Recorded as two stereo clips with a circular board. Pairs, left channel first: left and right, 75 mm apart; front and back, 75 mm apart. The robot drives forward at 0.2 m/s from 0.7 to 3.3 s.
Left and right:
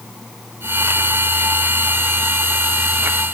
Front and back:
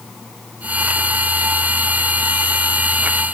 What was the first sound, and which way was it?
Only background noise.